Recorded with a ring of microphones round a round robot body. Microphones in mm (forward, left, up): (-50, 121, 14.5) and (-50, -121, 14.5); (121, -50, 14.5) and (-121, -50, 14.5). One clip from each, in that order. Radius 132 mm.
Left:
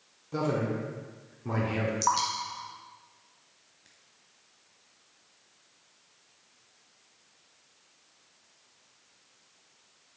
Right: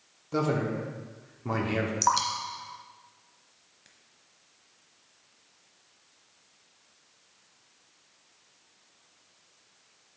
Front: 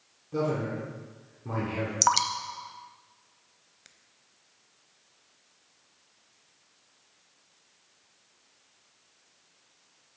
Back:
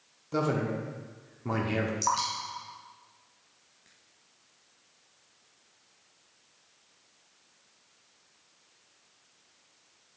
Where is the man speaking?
150° right, 1.2 m.